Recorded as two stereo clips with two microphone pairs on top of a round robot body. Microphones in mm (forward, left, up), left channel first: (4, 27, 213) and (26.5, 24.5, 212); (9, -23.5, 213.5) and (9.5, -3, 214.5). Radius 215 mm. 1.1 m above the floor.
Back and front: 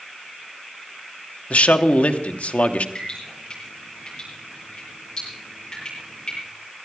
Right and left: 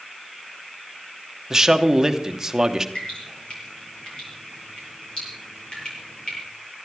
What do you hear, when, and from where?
1.5 s a man speaking: 165° left, 1.2 m
3.0 s dripping: 130° right, 9 m